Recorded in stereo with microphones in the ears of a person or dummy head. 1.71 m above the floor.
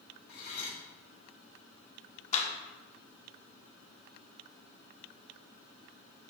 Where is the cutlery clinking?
60° left (ahead or behind), 1.8 m.